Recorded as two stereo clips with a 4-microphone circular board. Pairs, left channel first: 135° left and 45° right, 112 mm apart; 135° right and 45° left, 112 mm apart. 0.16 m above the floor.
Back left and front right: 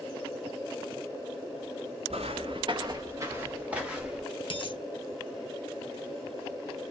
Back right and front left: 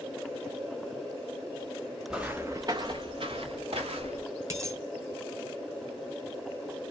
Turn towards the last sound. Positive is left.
turn(degrees=105)